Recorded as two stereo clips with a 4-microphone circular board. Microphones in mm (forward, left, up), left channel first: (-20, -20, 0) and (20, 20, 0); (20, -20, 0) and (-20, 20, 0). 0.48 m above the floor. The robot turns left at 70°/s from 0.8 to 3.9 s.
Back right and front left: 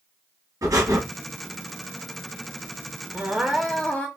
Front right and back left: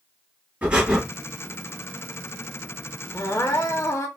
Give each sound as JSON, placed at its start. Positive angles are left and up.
{"t": 0.6, "sound": "breathing", "azimuth_deg": 75, "distance_m": 3.5}
{"t": 3.1, "sound": "crying", "azimuth_deg": -20, "distance_m": 1.5}